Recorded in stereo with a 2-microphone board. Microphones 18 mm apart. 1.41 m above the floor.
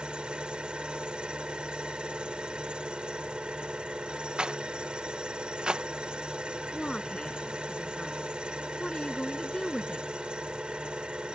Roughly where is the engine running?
Right.